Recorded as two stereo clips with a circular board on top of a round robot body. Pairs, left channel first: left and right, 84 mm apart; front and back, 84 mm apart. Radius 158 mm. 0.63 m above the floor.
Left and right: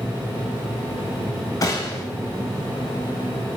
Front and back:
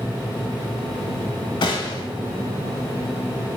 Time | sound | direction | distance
1.6 | a gunshot | 35° left | 1.1 m